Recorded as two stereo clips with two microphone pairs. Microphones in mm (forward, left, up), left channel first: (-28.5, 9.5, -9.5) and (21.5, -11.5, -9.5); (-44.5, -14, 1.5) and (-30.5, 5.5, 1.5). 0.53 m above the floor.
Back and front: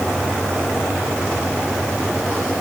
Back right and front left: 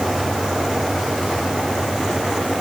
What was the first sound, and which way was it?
Only background noise.